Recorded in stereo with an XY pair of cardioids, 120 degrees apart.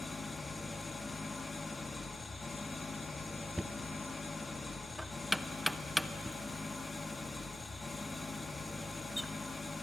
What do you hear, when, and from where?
0.0 s an engine running: 20° left, 1.3 m
3.6 s knocking: straight ahead, 0.7 m